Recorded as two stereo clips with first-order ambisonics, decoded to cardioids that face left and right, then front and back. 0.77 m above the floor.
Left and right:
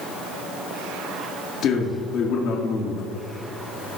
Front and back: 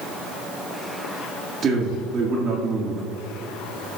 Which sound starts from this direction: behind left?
A man speaking, at 1.6 s.